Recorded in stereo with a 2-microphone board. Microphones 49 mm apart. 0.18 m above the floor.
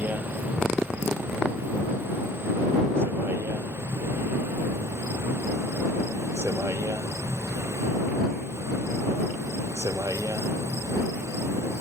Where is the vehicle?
35° right (ahead or behind); by 11.8 s 75° right (ahead or behind).